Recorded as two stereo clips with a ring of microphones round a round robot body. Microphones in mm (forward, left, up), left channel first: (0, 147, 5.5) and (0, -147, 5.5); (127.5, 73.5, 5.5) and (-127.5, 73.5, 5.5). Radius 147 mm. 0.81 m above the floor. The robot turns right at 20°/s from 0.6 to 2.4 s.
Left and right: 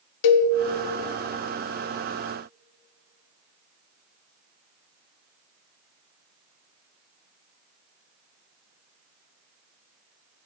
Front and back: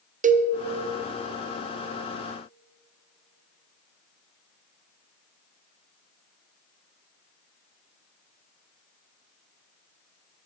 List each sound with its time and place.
0.2 s a cowbell: 115° left, 0.5 m